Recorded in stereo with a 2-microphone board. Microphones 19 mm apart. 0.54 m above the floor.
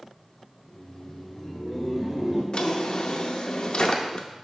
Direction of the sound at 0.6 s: 40° left (ahead or behind).